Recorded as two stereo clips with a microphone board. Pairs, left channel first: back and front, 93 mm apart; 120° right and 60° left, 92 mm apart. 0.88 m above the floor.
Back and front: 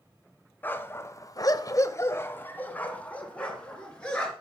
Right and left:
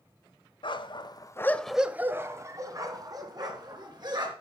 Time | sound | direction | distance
0.6 | a dog barking | 110° right | 1.2 m